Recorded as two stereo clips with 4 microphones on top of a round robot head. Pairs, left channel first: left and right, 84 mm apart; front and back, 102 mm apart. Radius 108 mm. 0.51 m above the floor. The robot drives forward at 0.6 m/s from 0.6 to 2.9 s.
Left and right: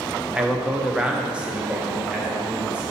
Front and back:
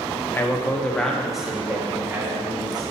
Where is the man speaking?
25° right, 1.3 m; by 2.8 s 165° right, 1.5 m.